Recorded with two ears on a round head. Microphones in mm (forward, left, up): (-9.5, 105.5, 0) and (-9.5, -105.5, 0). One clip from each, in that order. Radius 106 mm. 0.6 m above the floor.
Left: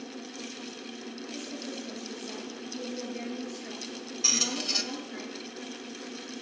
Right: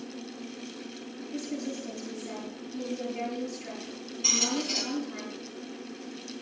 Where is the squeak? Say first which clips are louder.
Even; 60° left (ahead or behind), 1.6 m.